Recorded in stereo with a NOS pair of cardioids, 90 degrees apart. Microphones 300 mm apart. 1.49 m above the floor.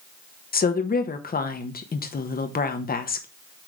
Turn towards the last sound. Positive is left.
turn(degrees=30)